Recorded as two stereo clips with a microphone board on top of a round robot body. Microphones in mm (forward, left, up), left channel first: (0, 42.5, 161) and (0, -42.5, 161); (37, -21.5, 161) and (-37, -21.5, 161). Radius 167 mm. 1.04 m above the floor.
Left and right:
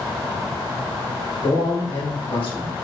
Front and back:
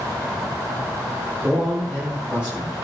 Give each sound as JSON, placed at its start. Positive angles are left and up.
{"t": 1.4, "sound": "a man speaking", "azimuth_deg": 100, "distance_m": 2.0}